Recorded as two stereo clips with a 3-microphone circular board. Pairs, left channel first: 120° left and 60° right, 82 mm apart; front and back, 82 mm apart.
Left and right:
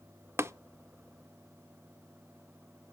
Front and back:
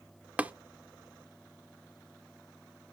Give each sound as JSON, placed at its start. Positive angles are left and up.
{"t": 0.4, "sound": "tapping", "azimuth_deg": -110, "distance_m": 0.6}